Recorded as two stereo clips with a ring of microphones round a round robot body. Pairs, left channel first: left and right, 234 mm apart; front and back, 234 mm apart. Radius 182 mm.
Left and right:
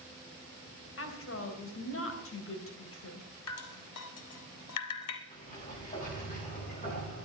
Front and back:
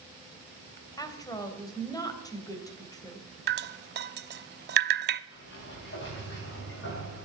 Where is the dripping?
135° left, 0.6 m.